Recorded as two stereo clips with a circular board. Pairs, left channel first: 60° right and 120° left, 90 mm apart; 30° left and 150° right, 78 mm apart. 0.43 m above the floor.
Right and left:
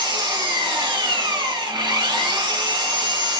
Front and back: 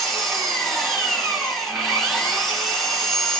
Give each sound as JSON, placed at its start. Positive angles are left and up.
{"t": 0.0, "sound": "an engine running", "azimuth_deg": 120, "distance_m": 1.3}